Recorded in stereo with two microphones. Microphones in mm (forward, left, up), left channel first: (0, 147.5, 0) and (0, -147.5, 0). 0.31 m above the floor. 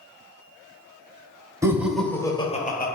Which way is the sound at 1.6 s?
10° right (ahead or behind).